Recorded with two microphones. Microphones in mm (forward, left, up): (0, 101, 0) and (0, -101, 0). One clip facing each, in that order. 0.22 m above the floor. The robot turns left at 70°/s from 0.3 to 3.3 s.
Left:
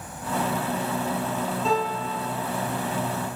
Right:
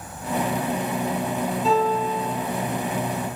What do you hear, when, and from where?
1.6 s a piano: 175° right, 1.0 m; by 2.4 s 135° left, 1.0 m